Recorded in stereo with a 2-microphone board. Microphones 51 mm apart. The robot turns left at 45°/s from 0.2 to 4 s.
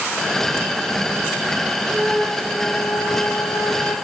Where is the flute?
175° left, 1.8 m; by 4.0 s 80° left, 1.8 m.